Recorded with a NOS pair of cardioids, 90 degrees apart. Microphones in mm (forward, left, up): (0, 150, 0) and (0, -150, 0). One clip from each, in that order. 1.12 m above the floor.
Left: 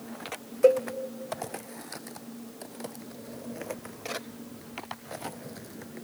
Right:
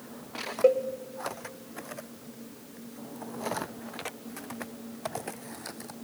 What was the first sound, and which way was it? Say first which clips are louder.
A cowbell: left 2 dB; 10° left.